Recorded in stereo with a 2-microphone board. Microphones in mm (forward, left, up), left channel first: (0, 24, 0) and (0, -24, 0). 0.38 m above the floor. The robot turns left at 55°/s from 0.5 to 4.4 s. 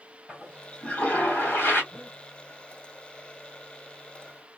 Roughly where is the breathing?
Right.